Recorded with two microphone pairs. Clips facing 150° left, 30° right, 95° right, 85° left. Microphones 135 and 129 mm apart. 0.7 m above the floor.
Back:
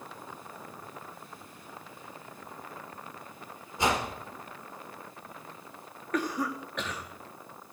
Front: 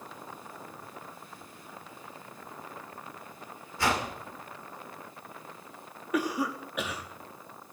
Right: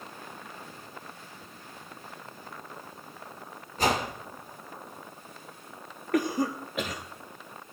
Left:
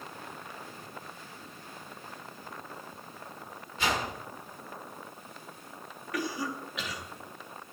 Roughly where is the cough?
Right.